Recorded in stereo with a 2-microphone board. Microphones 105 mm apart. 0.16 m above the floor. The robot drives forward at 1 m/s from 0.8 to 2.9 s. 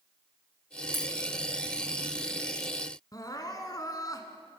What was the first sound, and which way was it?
A dropped coin, 25° right (ahead or behind).